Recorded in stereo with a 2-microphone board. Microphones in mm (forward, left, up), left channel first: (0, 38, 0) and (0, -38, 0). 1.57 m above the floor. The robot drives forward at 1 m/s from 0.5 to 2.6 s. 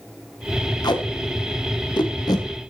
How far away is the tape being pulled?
About 1.5 m.